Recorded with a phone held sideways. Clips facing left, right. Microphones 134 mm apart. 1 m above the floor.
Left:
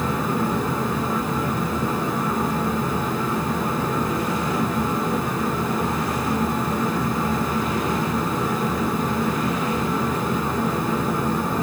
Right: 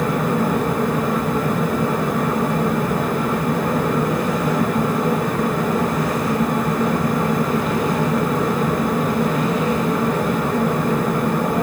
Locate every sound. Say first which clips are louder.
0.0 s a fan: right 4 dB; 60° right (ahead or behind), 1.0 m